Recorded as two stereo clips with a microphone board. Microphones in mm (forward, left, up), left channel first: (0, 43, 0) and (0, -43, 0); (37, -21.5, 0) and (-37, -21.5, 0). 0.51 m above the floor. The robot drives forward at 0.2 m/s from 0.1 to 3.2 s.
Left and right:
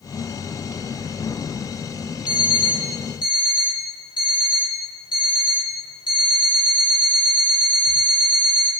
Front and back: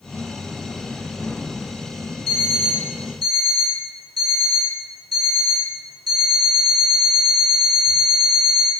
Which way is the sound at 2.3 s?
85° left.